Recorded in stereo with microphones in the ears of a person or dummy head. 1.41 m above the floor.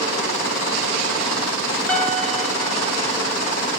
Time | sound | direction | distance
1.9 | a piano | 5° left (ahead or behind) | 1.1 m